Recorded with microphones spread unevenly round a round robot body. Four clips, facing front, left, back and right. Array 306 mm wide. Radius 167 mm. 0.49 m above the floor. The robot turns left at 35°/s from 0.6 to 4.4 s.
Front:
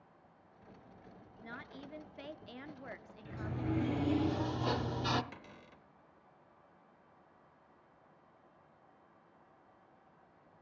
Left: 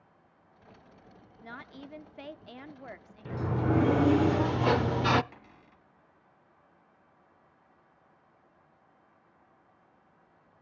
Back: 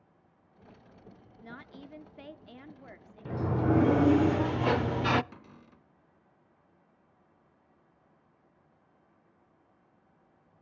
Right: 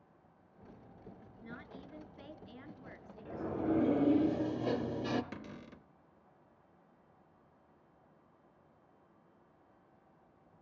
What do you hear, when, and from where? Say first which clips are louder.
1.4 s a woman speaking: left 5 dB, back 2 dB; 140° left, 1.1 m; by 4.2 s 40° left, 1.1 m
3.2 s a sliding door: left 4 dB, back 10 dB; 140° left, 0.5 m; by 5.2 s 100° left, 0.5 m
5.3 s a cupboard door: right 7 dB, back 1 dB; 105° right, 0.6 m